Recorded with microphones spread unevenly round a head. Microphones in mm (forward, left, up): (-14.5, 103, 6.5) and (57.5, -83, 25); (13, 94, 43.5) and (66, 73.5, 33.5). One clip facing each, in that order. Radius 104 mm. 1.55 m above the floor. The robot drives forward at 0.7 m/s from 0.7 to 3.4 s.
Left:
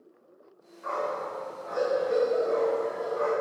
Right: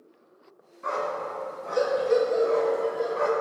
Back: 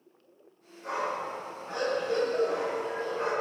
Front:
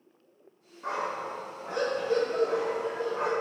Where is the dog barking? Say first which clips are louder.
Right 1 dB, even; 45° right, 4 m; by 3.3 s 70° right, 3.5 m.